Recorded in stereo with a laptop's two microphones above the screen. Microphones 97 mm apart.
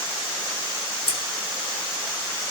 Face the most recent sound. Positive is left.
turn(degrees=65)  # may be behind; listen again after turning